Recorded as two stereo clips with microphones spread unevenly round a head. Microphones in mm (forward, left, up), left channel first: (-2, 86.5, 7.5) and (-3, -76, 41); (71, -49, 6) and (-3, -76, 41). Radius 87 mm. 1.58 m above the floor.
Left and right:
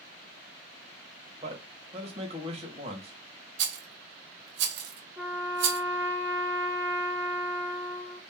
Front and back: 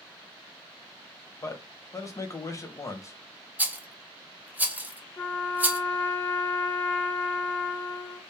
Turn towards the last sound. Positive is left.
turn(degrees=-75)